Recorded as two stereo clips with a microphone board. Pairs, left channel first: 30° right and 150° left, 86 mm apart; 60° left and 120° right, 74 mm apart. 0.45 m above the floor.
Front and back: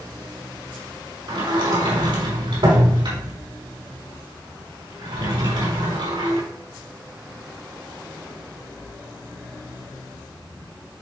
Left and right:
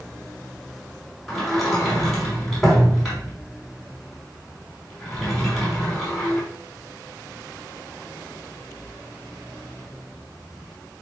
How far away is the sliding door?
About 4.5 m.